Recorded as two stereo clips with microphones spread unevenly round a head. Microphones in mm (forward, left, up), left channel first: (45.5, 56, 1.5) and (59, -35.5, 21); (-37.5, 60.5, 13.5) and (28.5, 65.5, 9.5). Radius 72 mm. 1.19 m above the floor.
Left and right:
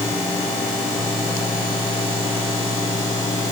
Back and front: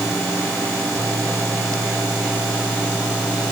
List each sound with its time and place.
Only background noise.